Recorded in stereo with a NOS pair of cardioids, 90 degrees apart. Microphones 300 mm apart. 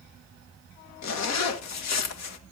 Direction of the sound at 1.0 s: 65° left.